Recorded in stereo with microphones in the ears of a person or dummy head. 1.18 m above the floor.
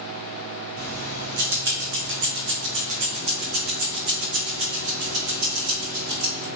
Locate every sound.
0.8 s keys jangling: 50° right (ahead or behind), 0.8 m; by 6.5 s 80° right, 3.5 m